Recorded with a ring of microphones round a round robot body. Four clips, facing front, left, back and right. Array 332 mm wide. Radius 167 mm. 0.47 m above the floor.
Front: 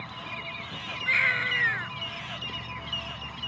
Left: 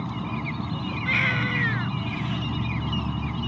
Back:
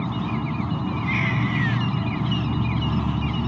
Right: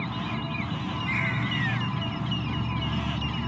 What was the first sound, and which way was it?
An insect, 175° left.